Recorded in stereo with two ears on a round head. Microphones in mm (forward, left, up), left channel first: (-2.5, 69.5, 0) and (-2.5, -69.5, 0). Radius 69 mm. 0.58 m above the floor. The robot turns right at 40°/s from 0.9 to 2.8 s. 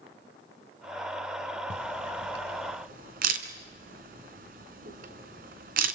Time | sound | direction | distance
1.7 | a camera shutter | 75° right (ahead or behind) | 3 m